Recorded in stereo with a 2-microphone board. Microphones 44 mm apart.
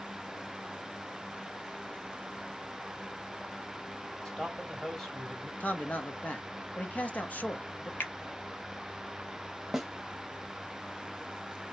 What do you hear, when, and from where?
4.2 s a man speaking: 5° left (ahead or behind), 2 m
5.6 s a man speaking: 35° left (ahead or behind), 1.0 m
8.0 s a finger snap: 55° left (ahead or behind), 0.8 m
9.7 s a snare drum: 5° right (ahead or behind), 0.8 m